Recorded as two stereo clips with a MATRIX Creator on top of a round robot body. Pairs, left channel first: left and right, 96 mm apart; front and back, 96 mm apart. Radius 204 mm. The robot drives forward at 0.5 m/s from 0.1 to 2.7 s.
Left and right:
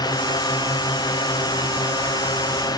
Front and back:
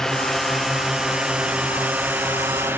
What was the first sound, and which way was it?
A drone, 85° left.